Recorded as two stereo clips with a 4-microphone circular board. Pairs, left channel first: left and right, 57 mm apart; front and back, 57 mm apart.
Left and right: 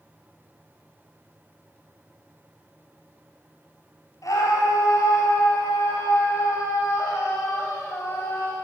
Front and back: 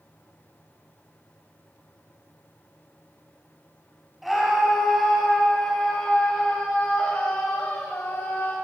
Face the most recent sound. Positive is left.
turn(degrees=45)